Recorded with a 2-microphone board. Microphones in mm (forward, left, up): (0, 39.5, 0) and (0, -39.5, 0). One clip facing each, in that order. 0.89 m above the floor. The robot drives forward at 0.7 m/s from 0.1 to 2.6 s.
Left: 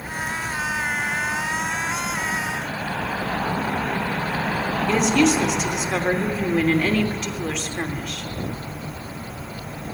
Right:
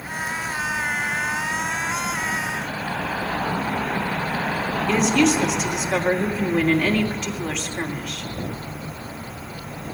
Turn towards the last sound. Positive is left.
turn(degrees=5)  # may be behind; listen again after turning